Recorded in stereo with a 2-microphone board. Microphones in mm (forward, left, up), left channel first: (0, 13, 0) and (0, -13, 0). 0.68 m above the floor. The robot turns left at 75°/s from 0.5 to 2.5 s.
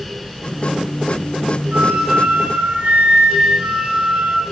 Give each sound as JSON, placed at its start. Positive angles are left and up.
{"t": 1.7, "sound": "a flute", "azimuth_deg": -50, "distance_m": 2.0}